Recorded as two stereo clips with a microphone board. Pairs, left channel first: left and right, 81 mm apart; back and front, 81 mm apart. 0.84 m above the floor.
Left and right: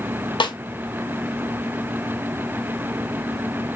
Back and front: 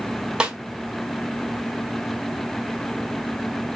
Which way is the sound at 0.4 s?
80° left.